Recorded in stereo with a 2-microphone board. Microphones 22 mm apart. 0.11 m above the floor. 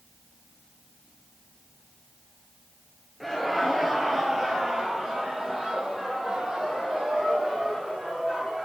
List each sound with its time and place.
3.2 s laughter: centre (ahead or behind), 1.6 m; by 8.7 s 40° right (ahead or behind), 5 m